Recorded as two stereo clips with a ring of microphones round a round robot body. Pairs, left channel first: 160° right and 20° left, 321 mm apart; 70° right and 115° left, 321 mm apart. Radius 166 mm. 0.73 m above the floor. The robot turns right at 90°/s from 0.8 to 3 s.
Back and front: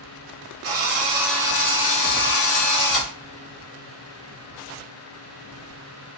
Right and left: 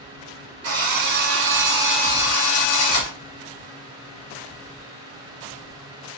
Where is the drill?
70° left, 4 m; by 3.1 s 95° right, 4 m.